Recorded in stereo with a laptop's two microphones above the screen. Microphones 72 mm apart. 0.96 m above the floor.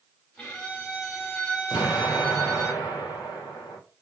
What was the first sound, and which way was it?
A violin, 20° left (ahead or behind).